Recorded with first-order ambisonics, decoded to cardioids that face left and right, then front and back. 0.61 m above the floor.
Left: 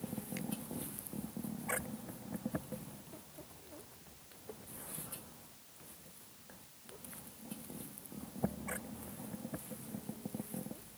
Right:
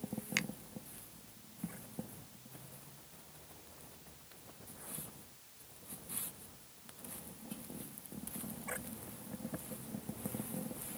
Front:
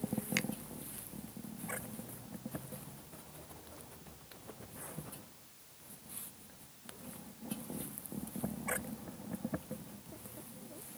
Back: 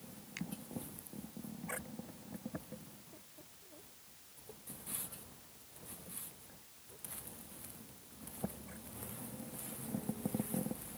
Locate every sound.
0.4 s a finger snap: 50° right